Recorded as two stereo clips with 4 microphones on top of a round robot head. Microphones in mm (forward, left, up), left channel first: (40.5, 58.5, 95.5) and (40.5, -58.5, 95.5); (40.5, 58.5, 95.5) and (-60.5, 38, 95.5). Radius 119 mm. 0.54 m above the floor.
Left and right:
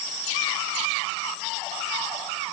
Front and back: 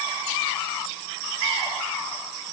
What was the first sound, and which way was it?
Only background noise.